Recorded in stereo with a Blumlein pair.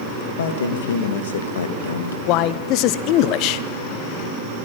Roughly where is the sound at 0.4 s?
Ahead left.